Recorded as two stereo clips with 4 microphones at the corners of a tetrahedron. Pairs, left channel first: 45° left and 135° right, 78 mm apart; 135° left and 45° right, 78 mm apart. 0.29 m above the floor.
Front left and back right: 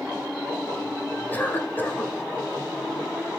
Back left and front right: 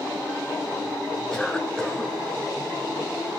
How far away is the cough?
About 1.5 m.